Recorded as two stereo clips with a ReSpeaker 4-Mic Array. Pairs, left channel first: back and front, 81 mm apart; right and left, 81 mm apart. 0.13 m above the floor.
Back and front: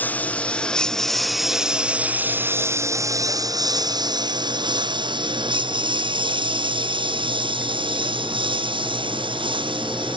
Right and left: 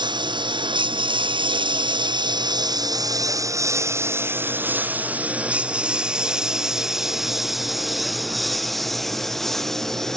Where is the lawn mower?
110° left; by 10.2 s 5° right.